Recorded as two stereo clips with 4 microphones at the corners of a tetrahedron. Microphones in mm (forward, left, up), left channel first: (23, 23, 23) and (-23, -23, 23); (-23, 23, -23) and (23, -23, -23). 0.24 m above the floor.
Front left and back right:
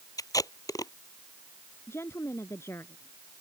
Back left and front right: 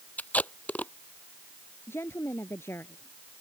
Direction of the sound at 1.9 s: 90° left.